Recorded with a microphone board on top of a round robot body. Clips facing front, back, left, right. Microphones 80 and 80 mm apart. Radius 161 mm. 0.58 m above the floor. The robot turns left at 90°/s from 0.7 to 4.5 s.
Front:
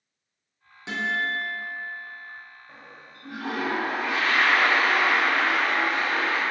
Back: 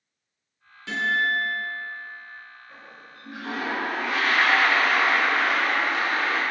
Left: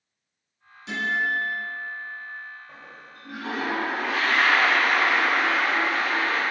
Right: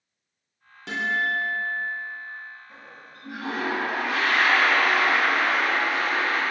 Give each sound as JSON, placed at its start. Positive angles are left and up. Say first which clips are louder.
{"t": 0.9, "sound": "a guitar", "louder": "back 3 dB, even", "azimuth_deg": -70, "distance_m": 1.6}
{"t": 2.7, "sound": "a toilet flushing", "louder": "back 1 dB, left 1 dB", "azimuth_deg": 50, "distance_m": 1.1}